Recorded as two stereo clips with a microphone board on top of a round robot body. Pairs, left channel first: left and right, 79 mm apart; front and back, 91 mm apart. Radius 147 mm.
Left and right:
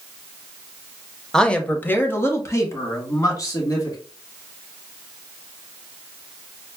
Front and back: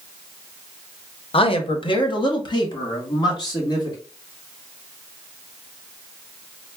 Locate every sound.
1.3 s a man speaking: 5° left, 0.8 m; by 4.0 s 45° left, 2 m